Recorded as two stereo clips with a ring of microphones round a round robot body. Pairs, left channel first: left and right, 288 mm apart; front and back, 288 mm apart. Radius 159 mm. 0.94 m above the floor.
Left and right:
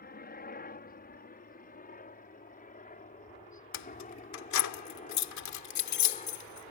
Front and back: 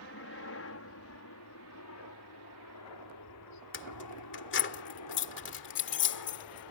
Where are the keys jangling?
60° left.